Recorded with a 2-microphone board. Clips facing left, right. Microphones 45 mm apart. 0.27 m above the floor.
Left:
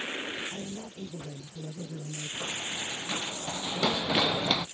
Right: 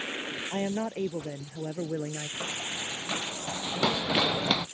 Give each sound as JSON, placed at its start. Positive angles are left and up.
{"t": 0.5, "sound": "a woman speaking", "side_deg": -80}
{"t": 2.4, "sound": "running footsteps", "side_deg": -30}